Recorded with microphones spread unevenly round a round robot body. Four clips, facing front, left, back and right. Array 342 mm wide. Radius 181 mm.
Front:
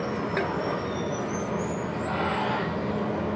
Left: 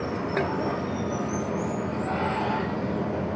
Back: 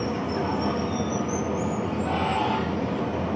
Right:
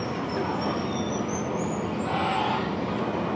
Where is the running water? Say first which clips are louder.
Left 1 dB, back 1 dB; 165° left, 3.5 m.